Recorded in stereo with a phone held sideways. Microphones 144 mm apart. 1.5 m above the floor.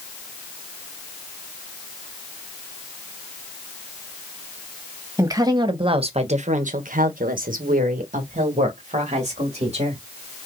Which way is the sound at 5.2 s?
20° right (ahead or behind).